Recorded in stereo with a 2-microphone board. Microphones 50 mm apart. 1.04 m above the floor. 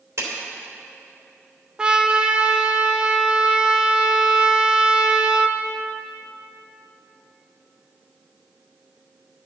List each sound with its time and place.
0.2 s a clap: 80° right, 3 m
1.8 s a trumpet: 20° right (ahead or behind), 0.6 m